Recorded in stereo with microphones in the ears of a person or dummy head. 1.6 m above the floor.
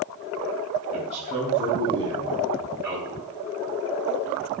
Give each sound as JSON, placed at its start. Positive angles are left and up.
{"t": 0.9, "sound": "a man speaking", "side_deg": -45, "distance_m": 3.5}